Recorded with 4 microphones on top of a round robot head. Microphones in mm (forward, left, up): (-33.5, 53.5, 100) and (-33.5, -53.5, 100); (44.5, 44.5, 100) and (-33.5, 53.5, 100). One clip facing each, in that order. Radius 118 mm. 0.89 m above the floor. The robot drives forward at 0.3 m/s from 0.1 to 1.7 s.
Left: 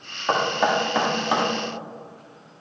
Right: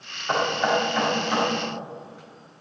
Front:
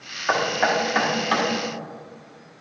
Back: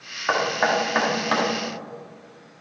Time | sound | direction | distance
0.3 | knocking | 100° left | 1.7 m